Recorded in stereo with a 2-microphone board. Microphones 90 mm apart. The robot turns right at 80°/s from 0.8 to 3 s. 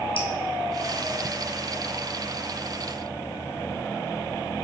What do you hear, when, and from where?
0.2 s dripping: 80° left, 1.4 m